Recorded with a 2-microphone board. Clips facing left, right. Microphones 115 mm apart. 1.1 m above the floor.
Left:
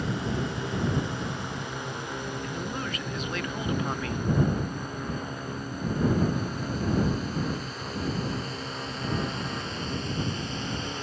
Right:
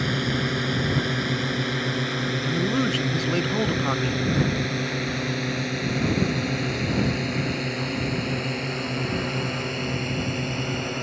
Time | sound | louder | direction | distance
0.0 | a drone | right 4 dB | 85° right | ?
2.4 | a man speaking | right 10 dB | 30° right (ahead or behind) | ?